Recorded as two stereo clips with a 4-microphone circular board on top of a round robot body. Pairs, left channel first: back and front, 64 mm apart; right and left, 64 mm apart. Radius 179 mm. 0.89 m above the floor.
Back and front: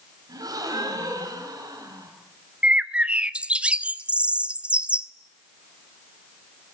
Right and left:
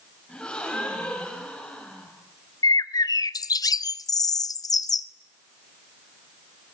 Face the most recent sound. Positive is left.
turn(degrees=-75)